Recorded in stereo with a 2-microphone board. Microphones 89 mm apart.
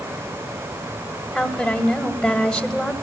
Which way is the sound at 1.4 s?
5° left (ahead or behind).